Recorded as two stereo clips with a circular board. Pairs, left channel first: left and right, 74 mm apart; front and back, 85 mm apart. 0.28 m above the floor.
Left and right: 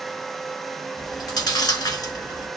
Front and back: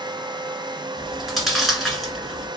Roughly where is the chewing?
Left.